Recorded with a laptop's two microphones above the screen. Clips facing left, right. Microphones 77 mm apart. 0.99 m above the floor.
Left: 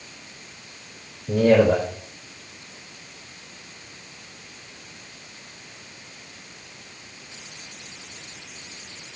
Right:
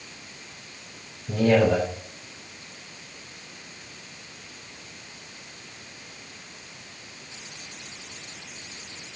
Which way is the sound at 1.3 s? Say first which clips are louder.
Left 3 dB; 45° left (ahead or behind).